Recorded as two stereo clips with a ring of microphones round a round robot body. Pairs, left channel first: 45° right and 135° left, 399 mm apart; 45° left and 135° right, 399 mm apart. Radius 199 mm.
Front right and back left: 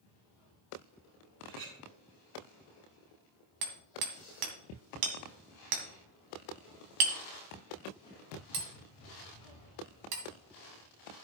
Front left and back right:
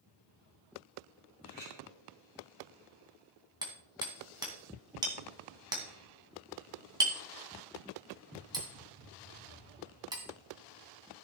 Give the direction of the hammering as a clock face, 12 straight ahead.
7 o'clock.